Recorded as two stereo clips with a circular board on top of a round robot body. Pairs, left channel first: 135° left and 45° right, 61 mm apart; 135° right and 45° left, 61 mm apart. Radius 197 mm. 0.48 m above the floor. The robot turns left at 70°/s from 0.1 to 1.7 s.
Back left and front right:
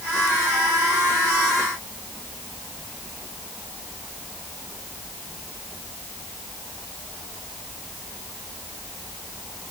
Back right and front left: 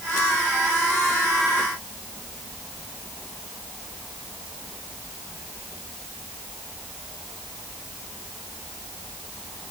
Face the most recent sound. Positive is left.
No sound to turn to.